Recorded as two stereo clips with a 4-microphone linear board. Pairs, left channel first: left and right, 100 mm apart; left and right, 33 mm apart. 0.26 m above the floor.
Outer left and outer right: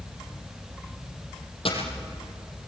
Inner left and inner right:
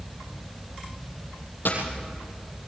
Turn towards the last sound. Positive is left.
turn(degrees=65)  # may be behind; listen again after turning